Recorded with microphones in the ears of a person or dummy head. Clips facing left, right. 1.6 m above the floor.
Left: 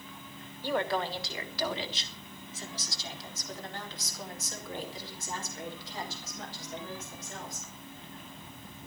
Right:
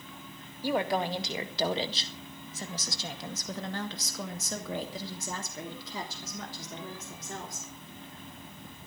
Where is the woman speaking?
10° right (ahead or behind), 1.8 m; by 7.7 s 80° right, 4 m.